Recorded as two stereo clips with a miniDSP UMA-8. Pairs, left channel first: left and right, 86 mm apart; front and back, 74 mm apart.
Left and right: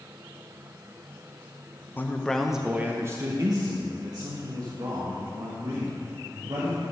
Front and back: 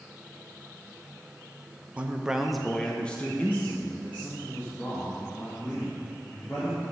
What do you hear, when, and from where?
2.0 s a man speaking: 125° left, 0.6 m; by 6.8 s 60° right, 2.5 m